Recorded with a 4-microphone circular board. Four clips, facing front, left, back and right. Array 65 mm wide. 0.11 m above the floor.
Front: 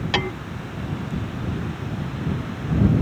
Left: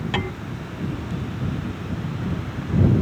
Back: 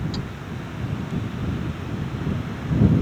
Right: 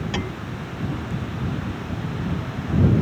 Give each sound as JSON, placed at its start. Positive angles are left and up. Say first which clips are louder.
{"t": 0.1, "sound": "hammering", "louder": "left 3 dB, front 9 dB", "azimuth_deg": 20}